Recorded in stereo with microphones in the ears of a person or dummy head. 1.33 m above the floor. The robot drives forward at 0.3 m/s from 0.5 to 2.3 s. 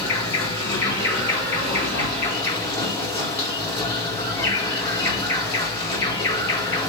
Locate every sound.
0.0 s an insect: 15° left (ahead or behind), 5 m